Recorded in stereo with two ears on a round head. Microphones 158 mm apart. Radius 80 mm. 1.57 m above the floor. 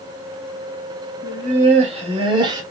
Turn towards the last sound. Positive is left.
turn(degrees=-25)  # may be behind; listen again after turning